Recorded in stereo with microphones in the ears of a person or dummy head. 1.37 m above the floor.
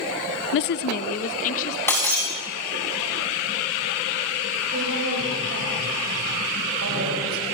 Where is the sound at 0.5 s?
65° left (ahead or behind), 0.5 m; by 1.8 s 40° left (ahead or behind), 2.5 m.